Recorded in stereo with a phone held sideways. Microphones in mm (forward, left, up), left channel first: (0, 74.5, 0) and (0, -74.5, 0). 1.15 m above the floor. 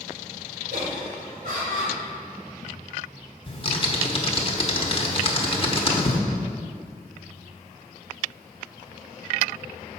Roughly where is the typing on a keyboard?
Left.